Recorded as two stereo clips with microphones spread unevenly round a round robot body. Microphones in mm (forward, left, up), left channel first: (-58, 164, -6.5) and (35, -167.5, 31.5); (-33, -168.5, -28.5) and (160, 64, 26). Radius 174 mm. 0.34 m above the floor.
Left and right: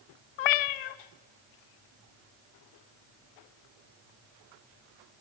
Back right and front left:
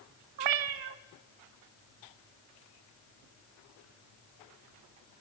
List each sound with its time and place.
0.4 s a cat meowing: 85° left, 0.7 m